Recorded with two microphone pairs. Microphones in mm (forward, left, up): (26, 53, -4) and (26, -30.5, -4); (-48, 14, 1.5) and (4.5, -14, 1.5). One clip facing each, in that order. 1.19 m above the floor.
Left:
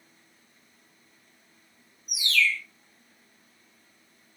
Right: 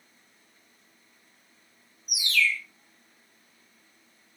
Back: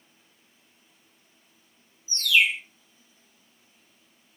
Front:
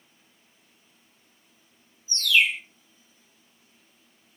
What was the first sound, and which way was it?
A bird, 155° right.